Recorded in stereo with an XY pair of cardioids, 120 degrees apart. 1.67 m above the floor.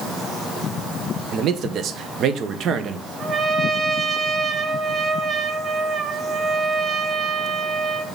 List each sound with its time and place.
1.3 s a man speaking: 55° right, 1.2 m
3.2 s a trumpet: 30° right, 1.0 m